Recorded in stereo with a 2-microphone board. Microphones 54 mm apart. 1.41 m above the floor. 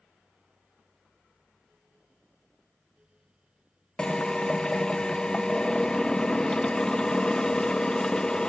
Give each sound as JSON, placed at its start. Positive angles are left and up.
{"t": 4.0, "sound": "a drill", "side_deg": 15}